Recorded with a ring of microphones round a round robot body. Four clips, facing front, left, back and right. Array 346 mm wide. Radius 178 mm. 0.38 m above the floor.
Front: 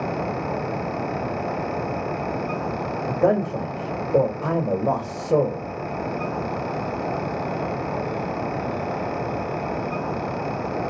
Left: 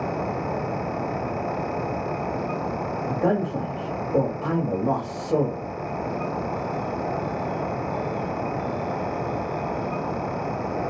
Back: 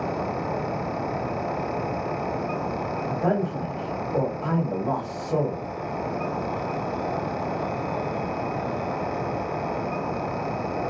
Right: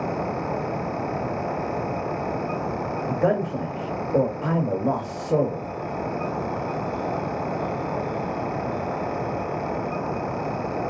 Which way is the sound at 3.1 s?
15° right.